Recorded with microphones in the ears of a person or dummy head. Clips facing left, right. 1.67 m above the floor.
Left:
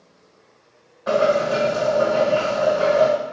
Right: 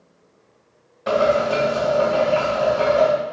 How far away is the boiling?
About 1.6 m.